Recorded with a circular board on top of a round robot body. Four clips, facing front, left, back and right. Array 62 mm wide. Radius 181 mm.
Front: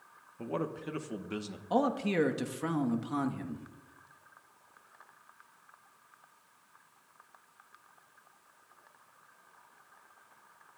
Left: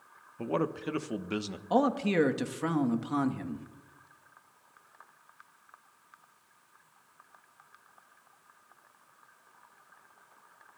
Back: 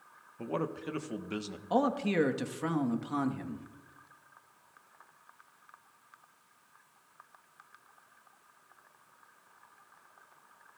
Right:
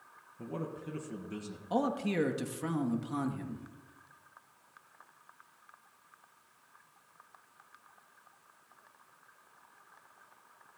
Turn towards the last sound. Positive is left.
turn(degrees=105)